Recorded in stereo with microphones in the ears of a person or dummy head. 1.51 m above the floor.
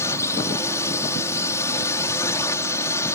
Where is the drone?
15° left (ahead or behind).